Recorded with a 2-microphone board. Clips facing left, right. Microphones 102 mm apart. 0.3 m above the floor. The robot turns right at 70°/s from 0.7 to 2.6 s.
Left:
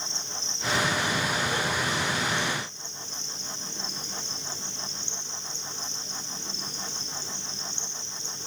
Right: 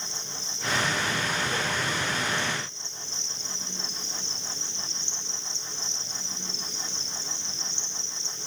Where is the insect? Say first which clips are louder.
Left 1 dB; 5° right, 3 m; by 8.5 s 125° left, 3 m.